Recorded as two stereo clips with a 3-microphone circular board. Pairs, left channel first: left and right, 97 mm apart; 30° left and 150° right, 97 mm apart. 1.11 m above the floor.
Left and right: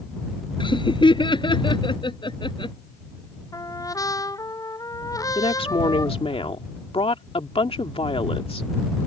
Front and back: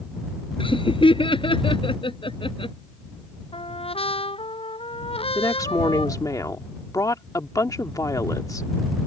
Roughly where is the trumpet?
Ahead left.